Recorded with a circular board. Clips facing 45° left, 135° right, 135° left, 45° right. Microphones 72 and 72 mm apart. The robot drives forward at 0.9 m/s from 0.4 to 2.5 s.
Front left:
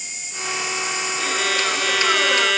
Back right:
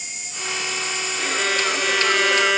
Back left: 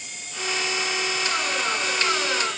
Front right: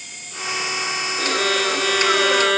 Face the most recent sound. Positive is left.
turn(degrees=-55)